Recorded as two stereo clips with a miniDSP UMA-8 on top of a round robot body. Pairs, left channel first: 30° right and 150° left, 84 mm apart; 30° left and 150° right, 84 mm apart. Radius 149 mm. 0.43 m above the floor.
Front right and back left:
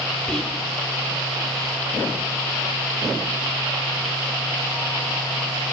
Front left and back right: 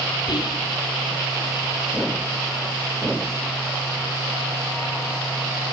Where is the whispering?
50° left, 5 m.